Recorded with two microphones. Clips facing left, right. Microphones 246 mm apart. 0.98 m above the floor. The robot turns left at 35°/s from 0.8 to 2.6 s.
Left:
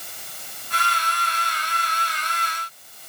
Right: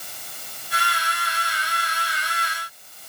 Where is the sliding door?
No sliding door in this recording.